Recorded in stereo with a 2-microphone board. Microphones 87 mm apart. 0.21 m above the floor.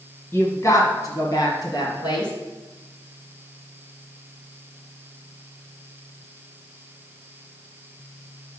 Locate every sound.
0.3 s a woman speaking: 30° left (ahead or behind), 1.1 m; by 2.3 s 60° left (ahead or behind), 2 m